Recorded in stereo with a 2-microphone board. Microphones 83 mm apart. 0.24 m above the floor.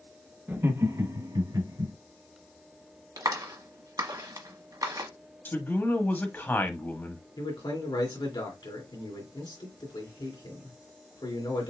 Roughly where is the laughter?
Right.